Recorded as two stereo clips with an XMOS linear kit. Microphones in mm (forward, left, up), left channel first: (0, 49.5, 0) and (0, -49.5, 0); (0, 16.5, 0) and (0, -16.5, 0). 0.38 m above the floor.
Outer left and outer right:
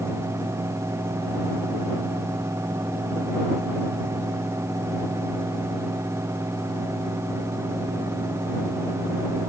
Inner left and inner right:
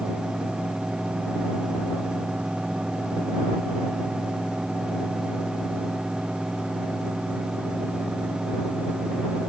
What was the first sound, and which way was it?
Only background noise.